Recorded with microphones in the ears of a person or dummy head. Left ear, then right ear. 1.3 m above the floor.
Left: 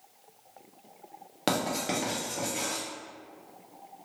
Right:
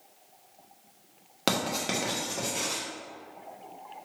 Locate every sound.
1.5 s writing: 5° right (ahead or behind), 1.1 m